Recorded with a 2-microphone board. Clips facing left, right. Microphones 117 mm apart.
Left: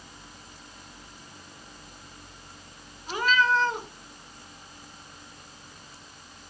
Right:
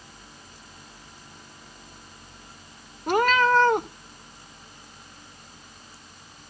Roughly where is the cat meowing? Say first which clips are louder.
Right 5 dB; right.